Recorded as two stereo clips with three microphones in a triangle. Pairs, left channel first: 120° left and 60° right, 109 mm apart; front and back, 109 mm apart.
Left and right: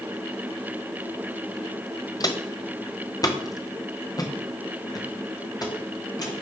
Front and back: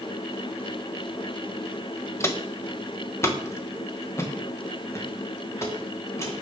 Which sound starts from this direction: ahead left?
Footsteps, at 2.2 s.